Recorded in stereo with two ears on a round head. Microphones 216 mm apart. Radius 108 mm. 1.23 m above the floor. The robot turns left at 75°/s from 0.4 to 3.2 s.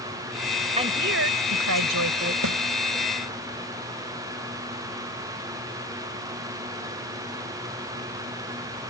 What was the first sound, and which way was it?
A woman speaking, 25° right.